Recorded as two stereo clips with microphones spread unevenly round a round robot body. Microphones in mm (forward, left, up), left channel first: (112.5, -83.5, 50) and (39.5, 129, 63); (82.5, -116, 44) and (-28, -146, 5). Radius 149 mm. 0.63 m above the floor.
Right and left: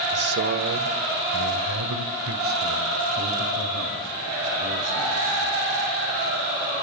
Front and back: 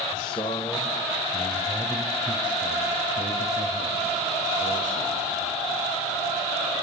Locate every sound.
0.1 s a man speaking: 70° left, 2 m; by 5.6 s 165° left, 8 m